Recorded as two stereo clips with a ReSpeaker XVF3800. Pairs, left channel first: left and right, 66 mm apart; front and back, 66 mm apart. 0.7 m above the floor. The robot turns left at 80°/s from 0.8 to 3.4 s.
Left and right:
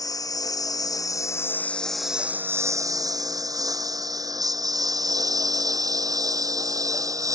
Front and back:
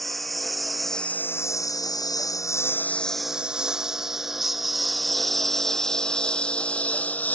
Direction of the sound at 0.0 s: 85° left.